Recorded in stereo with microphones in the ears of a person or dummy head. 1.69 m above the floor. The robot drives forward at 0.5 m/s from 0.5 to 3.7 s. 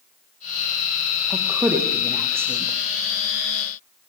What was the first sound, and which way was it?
A woman speaking, 10° right (ahead or behind).